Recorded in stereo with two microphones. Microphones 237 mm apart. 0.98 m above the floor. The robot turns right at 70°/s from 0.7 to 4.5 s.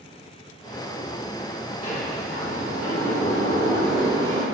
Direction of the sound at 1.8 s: 30° left.